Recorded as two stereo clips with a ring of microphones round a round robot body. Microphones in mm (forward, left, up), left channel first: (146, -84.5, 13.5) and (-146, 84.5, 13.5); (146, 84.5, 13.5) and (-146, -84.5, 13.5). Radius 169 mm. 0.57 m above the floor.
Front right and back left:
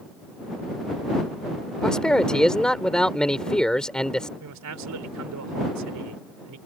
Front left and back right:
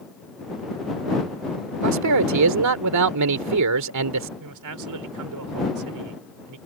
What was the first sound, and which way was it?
A man speaking, 120° right.